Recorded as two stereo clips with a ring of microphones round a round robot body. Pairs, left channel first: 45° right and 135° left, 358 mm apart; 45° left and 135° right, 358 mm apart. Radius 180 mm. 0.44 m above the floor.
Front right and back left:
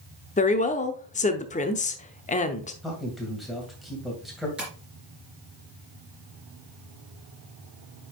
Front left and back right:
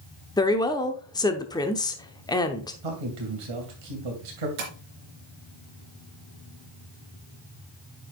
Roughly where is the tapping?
Behind right.